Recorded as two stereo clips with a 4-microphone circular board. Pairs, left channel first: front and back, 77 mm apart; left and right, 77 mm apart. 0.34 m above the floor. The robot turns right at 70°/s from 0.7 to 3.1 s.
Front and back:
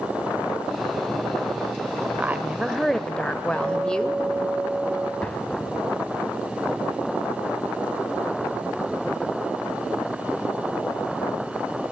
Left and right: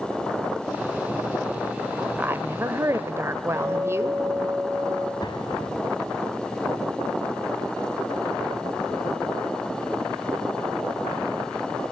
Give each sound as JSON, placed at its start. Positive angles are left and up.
{"t": 2.2, "sound": "a woman speaking", "azimuth_deg": -135, "distance_m": 1.1}
{"t": 3.5, "sound": "a guitar", "azimuth_deg": -175, "distance_m": 8.5}
{"t": 5.2, "sound": "an explosion", "azimuth_deg": 75, "distance_m": 1.6}